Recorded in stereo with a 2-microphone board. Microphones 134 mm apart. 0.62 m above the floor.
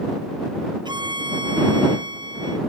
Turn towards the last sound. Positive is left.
turn(degrees=-35)  # may be behind; listen again after turning